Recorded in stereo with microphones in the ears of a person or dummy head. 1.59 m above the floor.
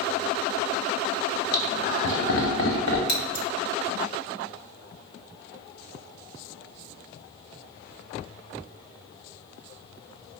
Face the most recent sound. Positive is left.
turn(degrees=60)  # may be behind; listen again after turning